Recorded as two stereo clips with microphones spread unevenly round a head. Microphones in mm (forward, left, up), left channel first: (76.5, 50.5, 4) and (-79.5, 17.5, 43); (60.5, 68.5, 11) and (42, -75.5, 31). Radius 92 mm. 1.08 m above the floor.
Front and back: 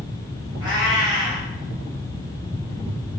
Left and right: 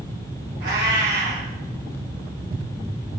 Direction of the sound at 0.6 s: 105° right.